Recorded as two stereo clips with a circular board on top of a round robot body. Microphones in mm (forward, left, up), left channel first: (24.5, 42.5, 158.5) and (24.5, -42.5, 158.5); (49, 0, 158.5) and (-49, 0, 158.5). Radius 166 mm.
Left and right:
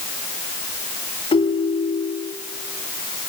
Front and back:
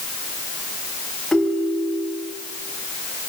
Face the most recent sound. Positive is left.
turn(degrees=85)